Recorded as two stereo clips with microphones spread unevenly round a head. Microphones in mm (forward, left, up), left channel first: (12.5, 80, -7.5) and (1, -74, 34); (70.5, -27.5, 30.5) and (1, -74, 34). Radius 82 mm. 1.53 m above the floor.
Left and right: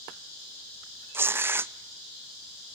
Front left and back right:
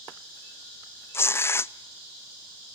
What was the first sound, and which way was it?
Tearing paper, 25° right.